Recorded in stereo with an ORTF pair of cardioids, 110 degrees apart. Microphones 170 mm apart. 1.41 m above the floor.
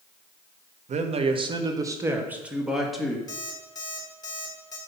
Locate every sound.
0.9 s a man speaking: 45° right, 1.5 m; by 3.2 s straight ahead, 2.5 m
3.3 s an alarm clock: 25° left, 3.5 m